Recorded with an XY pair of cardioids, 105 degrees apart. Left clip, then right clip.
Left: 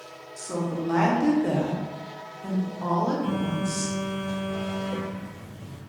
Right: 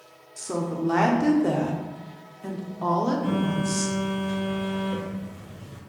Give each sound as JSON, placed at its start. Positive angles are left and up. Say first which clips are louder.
{"t": 0.4, "sound": "a woman speaking", "louder": "right 1 dB", "azimuth_deg": -30, "distance_m": 0.8}
{"t": 3.2, "sound": "a phone buzzing", "louder": "right 2 dB", "azimuth_deg": 10, "distance_m": 1.6}